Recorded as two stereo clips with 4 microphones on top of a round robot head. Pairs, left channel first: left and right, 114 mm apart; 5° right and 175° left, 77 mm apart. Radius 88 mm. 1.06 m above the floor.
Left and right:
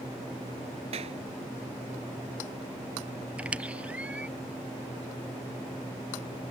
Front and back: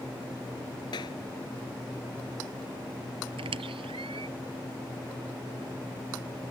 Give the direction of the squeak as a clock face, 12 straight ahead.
6 o'clock.